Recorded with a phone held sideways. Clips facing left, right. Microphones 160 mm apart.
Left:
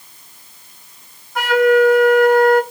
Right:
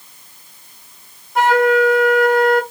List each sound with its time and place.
1.4 s a flute: 25° right (ahead or behind), 1.4 m